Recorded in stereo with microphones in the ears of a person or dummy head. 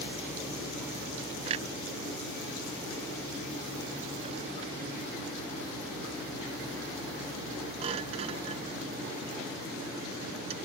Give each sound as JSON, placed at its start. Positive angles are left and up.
{"t": 1.5, "sound": "a clunk", "side_deg": -30}